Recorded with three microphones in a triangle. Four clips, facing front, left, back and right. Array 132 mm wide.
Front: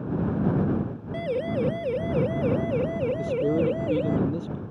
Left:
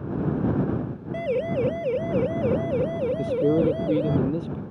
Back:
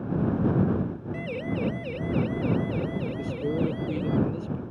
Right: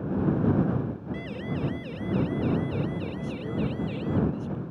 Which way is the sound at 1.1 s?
65° left.